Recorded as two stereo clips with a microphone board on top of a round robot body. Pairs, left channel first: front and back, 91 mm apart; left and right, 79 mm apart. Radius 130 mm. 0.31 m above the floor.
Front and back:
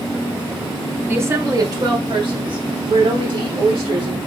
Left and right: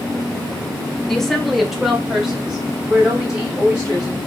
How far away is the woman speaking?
About 0.9 m.